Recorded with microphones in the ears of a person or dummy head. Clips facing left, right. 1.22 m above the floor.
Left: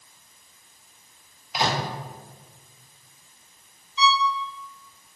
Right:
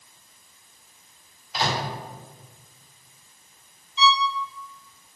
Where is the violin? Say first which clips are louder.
Right 1 dB; 25° right (ahead or behind), 0.6 m.